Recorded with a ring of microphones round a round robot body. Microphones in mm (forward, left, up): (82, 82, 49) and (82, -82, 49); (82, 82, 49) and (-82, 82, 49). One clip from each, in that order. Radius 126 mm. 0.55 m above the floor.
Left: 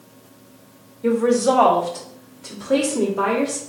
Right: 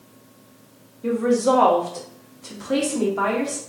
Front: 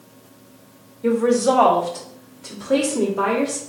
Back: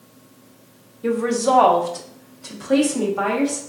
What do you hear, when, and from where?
1.0 s a woman speaking: 135° left, 0.9 m; by 3.6 s 120° right, 1.5 m